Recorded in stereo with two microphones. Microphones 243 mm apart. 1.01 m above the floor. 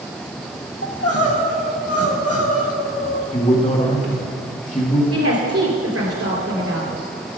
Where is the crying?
70° left (ahead or behind), 1.5 m.